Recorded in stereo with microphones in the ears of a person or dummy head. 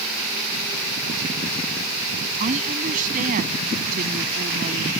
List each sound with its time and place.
2.4 s a woman speaking: 50° right (ahead or behind); by 4.9 s 55° right (ahead or behind)